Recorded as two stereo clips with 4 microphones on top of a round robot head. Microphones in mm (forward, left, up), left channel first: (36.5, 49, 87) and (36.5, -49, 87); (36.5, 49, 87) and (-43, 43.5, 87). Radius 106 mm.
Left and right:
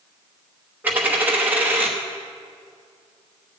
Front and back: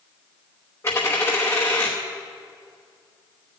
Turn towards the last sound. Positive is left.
turn(degrees=-40)